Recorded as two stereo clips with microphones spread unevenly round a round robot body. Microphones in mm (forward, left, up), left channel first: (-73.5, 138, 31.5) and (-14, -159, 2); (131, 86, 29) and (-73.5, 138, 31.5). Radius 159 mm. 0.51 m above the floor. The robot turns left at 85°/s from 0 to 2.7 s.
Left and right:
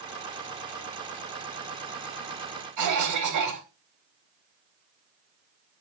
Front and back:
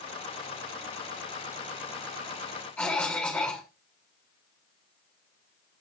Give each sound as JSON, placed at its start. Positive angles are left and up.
{"t": 2.8, "sound": "a cough", "azimuth_deg": -95, "distance_m": 3.0}